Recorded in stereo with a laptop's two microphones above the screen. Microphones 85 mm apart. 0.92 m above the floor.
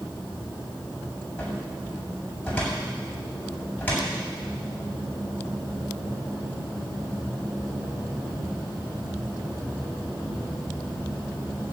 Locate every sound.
1.4 s a cupboard door: 20° left (ahead or behind), 7 m